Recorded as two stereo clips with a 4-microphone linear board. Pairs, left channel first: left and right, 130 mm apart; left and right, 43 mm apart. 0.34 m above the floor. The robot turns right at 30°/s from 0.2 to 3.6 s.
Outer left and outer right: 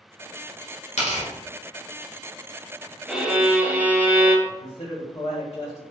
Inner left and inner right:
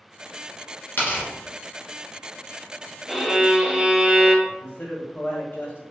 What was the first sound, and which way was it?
Tearing paper, 55° left (ahead or behind).